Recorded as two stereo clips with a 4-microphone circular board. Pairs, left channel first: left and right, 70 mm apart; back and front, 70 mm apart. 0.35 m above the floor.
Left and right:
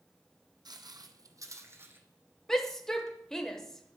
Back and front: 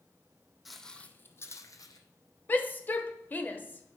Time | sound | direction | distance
0.7 | footsteps | 85° right | 1.0 m
2.5 | a shout | 165° left | 0.9 m